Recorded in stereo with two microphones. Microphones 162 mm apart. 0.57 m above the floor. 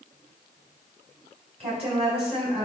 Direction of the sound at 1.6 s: 40° right (ahead or behind).